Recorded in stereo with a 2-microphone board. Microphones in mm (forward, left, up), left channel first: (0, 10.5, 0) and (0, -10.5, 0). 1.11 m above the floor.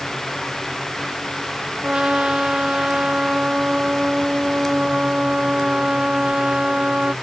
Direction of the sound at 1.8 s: 45° right (ahead or behind).